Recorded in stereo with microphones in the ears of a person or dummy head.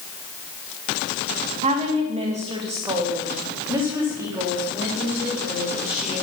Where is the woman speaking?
35° right (ahead or behind), 2 m; by 6.2 s 10° right (ahead or behind), 4.5 m.